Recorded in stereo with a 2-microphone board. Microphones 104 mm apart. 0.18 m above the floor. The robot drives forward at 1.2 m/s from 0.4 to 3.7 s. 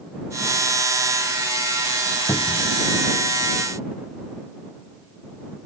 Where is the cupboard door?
40° left (ahead or behind).